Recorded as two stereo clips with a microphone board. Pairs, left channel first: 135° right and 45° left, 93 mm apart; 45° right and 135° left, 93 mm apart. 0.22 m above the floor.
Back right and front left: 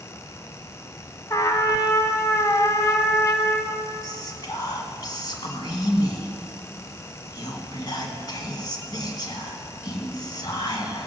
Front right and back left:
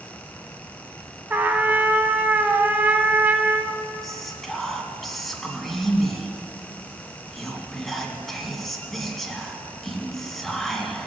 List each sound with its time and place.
1.3 s a trumpet: 165° right, 1.1 m
4.0 s whispering: 130° right, 2.5 m